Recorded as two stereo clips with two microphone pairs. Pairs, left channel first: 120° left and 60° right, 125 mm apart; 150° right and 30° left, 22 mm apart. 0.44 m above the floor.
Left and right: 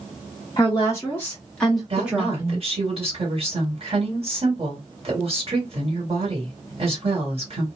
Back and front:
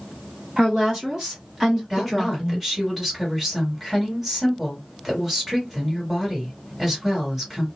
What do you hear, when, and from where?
0.6 s a woman speaking: 70° left, 1.6 m; by 2.6 s 55° right, 1.2 m
1.9 s a woman speaking: 55° right, 1.7 m